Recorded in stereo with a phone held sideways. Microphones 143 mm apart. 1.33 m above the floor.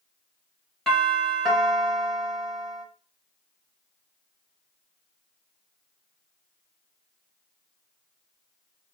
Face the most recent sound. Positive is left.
turn(degrees=5)  # may be behind; listen again after turning